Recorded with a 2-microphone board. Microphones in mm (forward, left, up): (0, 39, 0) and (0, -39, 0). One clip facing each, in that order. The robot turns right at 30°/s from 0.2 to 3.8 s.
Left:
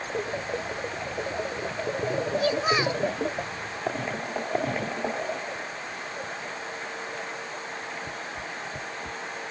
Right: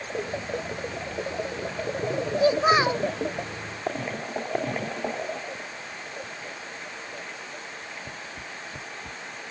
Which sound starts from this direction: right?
A child speaking, at 2.4 s.